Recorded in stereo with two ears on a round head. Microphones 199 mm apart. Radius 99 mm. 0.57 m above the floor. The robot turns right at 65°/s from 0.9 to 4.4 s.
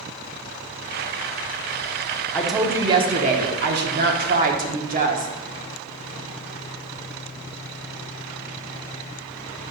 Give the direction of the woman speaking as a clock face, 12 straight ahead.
6 o'clock.